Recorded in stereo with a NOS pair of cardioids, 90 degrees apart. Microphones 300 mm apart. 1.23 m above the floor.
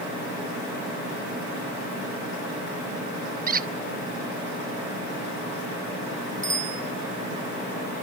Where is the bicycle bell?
25° right, 7.5 m.